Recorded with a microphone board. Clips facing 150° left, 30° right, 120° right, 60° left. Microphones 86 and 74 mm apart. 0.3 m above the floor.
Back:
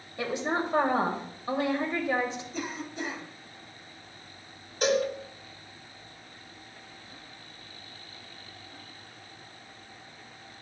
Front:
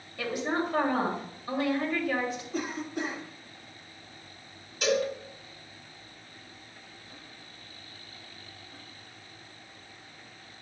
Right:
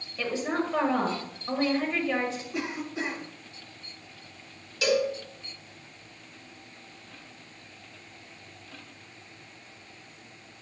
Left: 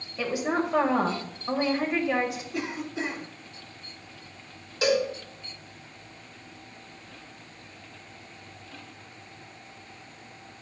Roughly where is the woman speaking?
Behind left.